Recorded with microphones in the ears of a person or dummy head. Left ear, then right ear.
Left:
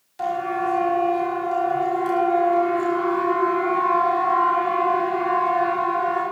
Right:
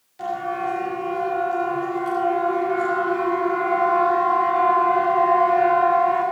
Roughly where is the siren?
Left.